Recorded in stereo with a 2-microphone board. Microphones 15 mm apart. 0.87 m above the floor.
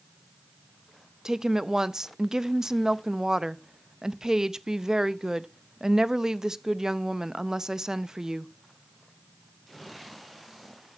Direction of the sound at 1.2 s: 55° right (ahead or behind).